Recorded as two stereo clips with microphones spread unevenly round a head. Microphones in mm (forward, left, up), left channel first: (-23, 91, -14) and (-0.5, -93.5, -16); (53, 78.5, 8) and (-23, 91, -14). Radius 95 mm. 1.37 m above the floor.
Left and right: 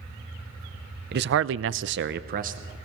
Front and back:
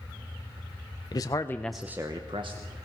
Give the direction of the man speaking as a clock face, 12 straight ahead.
2 o'clock.